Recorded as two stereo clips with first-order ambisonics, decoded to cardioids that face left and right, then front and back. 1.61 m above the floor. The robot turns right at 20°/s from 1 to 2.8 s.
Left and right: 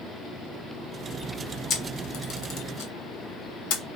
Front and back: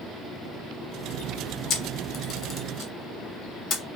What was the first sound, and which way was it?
A camera shutter, 45° left.